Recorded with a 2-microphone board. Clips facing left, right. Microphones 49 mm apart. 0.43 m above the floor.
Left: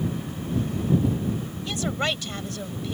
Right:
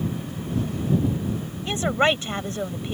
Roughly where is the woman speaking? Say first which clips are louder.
Right 7 dB; right.